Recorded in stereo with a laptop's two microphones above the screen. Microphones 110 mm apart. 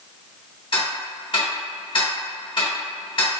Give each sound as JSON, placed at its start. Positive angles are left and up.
{"t": 0.7, "sound": "ticking", "side_deg": 50, "distance_m": 1.2}